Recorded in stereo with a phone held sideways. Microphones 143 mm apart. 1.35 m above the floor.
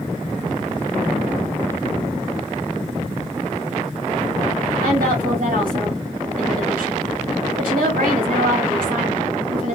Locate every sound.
4.8 s a woman speaking: 80° right, 1.9 m